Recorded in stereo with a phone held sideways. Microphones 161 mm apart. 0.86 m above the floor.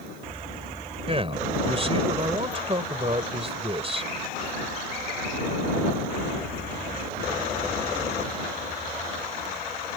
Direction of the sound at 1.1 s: 35° right (ahead or behind).